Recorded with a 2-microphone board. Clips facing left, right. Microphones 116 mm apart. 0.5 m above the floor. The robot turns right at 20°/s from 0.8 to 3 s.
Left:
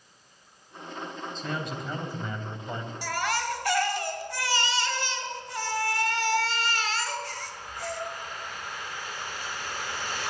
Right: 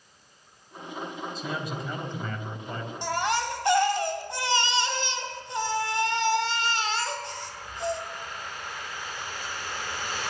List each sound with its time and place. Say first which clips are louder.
1.4 s a man speaking: left 1 dB; 5° right, 3 m; by 2.9 s 25° left, 3 m
3.0 s a baby crying: right 3 dB; 25° right (ahead or behind), 1.9 m